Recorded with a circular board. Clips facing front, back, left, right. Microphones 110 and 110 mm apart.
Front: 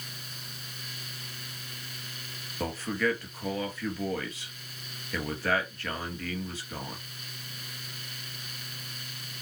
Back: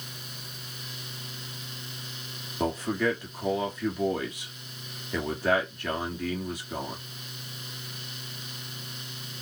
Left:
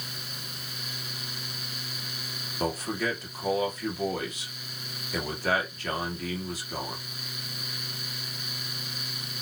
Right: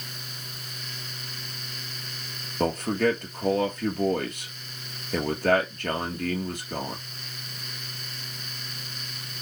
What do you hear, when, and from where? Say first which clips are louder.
2.6 s a man speaking: back 3 dB, right 6 dB; 110° right, 2.5 m